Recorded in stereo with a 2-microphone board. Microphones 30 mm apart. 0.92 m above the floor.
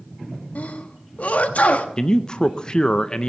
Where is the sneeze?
55° left (ahead or behind), 1.1 m.